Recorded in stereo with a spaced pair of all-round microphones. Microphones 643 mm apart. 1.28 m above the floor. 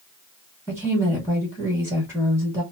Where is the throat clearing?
No throat clearing in this recording.